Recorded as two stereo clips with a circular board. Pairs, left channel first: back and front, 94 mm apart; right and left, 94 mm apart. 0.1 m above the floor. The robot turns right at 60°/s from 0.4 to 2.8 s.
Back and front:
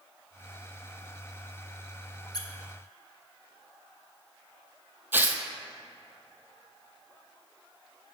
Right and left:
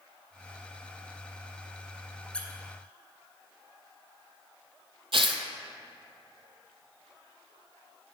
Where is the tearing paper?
70° left, 0.5 m.